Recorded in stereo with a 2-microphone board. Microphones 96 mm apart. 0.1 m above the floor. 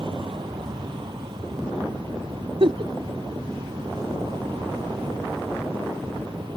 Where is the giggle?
70° right (ahead or behind).